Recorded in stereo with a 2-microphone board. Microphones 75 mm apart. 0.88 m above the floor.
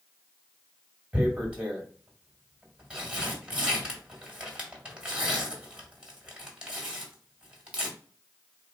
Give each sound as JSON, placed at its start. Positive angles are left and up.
{"t": 1.1, "sound": "tearing paper", "side_deg": -15, "distance_m": 2.0}